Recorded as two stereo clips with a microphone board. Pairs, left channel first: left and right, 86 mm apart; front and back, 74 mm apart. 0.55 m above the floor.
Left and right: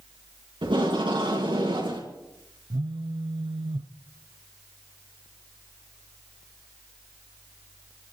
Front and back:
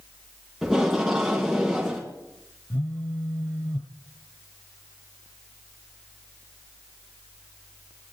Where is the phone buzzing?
65° right, 0.8 m.